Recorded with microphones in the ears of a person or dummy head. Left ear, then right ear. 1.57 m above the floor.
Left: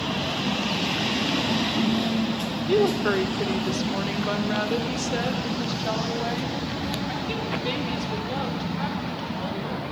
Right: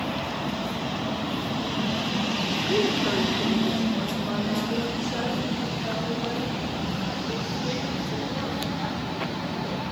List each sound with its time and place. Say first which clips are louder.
2.7 s a woman speaking: left 4 dB; 55° left (ahead or behind), 1.2 m; by 9.9 s 40° left (ahead or behind), 5.5 m